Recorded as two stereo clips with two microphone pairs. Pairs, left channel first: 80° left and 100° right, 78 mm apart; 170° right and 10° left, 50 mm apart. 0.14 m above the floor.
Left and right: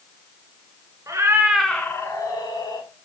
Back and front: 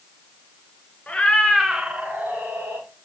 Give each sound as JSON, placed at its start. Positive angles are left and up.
{"t": 1.1, "sound": "a cat meowing", "azimuth_deg": -115, "distance_m": 1.1}